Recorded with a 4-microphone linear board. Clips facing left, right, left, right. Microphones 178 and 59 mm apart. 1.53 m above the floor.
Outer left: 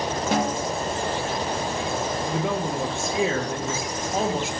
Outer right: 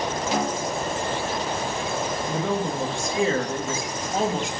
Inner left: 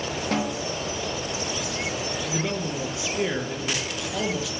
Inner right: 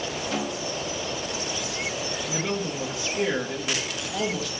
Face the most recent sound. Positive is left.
turn(degrees=5)  # may be behind; listen again after turning